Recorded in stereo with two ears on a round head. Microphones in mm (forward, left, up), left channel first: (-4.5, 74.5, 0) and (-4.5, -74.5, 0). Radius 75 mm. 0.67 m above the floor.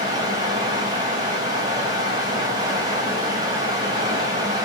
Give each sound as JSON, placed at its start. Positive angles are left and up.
{"t": 0.0, "sound": "running water", "side_deg": -25, "distance_m": 4.0}